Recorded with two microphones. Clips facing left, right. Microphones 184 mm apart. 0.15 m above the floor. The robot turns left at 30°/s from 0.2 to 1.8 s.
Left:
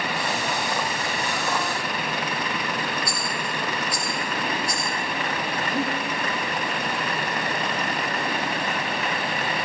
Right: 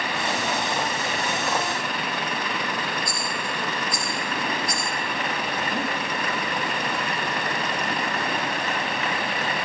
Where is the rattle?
70° left (ahead or behind), 5 m.